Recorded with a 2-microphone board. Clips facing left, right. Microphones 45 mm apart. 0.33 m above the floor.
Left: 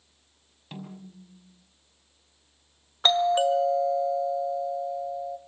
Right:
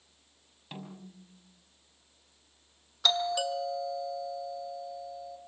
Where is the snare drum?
5° left (ahead or behind), 5.5 m.